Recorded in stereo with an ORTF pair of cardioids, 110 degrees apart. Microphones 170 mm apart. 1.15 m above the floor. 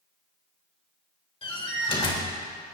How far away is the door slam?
About 4 m.